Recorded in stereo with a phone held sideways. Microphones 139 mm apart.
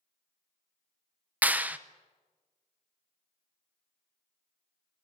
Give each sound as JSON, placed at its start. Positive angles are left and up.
{"t": 1.4, "sound": "a clap", "side_deg": -10, "distance_m": 0.7}